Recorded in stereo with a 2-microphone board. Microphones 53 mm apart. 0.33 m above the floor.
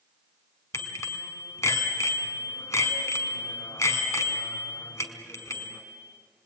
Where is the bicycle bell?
70° left (ahead or behind), 2 m.